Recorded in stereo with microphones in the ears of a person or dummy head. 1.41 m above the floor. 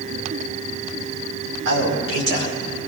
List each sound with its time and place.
1.6 s a man speaking: 85° right, 4.5 m